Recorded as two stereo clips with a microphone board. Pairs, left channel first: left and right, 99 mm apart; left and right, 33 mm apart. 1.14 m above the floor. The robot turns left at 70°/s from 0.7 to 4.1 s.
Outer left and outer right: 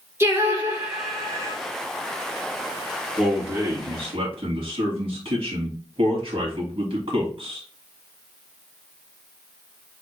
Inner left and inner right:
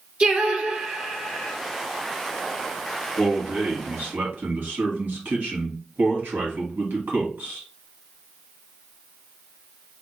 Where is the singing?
155° right, 0.9 m; by 1.5 s 145° left, 0.9 m.